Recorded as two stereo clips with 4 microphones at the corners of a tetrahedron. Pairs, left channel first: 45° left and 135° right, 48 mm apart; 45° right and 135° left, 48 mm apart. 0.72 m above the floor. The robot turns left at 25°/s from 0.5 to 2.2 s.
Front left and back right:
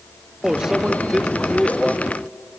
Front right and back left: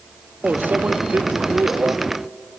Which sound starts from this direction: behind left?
A microwave, at 0.4 s.